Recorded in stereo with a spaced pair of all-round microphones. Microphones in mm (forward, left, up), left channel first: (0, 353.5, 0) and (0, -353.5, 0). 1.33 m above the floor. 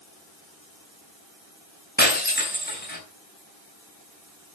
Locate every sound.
2.0 s breaking glass: 15° left (ahead or behind), 4 m